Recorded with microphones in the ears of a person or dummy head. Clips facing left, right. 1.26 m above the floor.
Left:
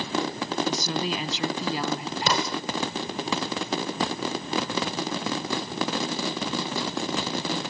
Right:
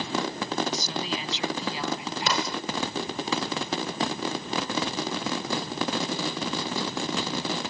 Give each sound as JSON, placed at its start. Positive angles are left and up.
{"t": 0.7, "sound": "a woman speaking", "side_deg": 45}
{"t": 2.3, "sound": "an explosion", "side_deg": 85}